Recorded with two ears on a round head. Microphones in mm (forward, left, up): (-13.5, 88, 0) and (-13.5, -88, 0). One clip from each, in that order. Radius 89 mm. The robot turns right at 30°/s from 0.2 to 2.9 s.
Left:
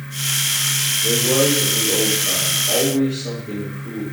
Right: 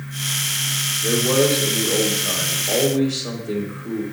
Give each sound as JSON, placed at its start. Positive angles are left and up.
{"t": 1.0, "sound": "a man speaking", "azimuth_deg": -110, "distance_m": 2.5}